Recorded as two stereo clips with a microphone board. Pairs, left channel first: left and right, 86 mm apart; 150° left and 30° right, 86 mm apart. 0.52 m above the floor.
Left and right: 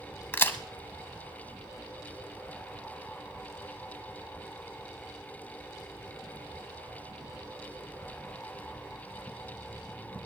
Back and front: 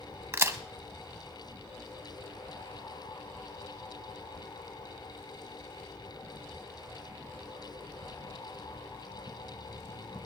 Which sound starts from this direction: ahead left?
A crack, at 0.3 s.